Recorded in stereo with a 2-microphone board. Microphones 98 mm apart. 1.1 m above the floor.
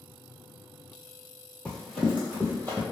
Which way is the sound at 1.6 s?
10° left (ahead or behind).